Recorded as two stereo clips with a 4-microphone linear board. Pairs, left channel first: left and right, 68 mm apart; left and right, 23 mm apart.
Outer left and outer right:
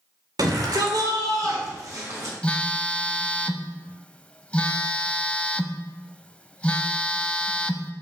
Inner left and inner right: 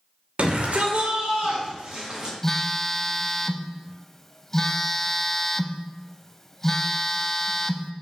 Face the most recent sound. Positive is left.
turn(degrees=20)  # may be behind; listen again after turning